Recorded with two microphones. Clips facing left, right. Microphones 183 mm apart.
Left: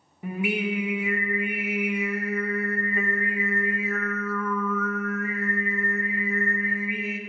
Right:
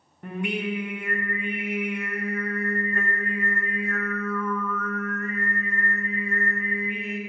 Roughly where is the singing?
Centre.